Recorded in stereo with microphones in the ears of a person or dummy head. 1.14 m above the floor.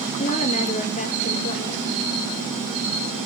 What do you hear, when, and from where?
0.2 s a woman speaking: 40° left (ahead or behind), 2.5 m